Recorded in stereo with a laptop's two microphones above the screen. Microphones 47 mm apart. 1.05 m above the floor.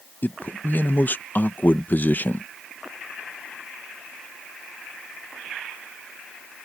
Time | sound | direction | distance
0.2 | a man speaking | 40° left (ahead or behind) | ?